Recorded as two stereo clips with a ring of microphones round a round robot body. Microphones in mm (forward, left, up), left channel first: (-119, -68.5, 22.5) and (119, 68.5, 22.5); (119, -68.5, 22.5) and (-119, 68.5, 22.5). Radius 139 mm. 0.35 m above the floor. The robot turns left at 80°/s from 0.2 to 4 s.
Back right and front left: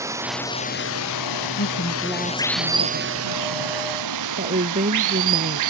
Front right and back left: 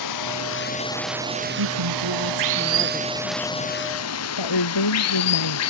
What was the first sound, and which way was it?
Running water, 50° right.